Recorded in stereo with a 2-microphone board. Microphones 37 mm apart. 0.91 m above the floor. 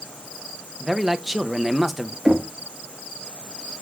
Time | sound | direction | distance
0.8 | a man speaking | 5° right (ahead or behind) | 0.7 m
2.2 | knocking | 15° right (ahead or behind) | 1.4 m